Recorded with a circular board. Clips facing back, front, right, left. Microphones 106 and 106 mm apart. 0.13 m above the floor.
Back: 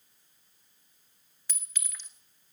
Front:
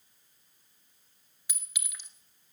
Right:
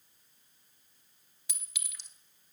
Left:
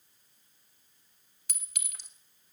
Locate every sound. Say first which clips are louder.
1.5 s a clink: even, left 1 dB; 75° left, 1.1 m